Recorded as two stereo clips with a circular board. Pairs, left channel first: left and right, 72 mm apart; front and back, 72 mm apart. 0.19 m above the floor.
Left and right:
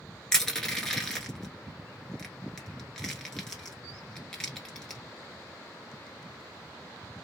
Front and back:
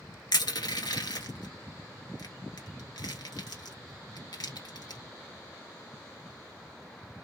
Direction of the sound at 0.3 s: 10° left.